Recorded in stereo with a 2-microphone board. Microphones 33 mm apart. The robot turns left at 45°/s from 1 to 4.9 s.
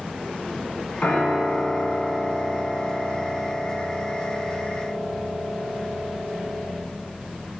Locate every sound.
1.0 s a piano: 50° left, 1.9 m; by 6.7 s 125° right, 1.9 m